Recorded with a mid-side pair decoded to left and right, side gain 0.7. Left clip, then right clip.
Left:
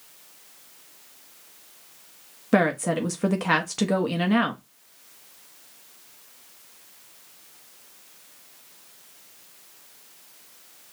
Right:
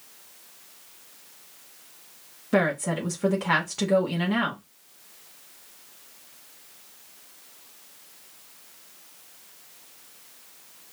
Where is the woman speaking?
25° left, 1.2 m.